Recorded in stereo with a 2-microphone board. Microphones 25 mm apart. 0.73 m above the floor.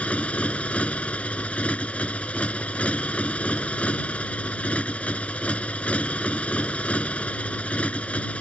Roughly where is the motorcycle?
Left.